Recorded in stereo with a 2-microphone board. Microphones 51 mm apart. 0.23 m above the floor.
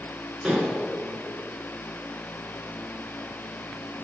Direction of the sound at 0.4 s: 20° right (ahead or behind).